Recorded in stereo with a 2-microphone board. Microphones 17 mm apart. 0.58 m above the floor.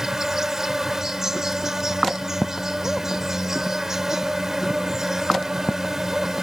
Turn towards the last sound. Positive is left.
turn(degrees=-30)  # may be behind; listen again after turning